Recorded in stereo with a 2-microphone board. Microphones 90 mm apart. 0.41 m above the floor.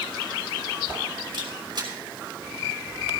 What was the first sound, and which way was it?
A camera shutter, 55° right (ahead or behind).